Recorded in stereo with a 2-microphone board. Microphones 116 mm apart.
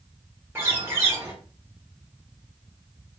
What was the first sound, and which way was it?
A bird, 20° right (ahead or behind).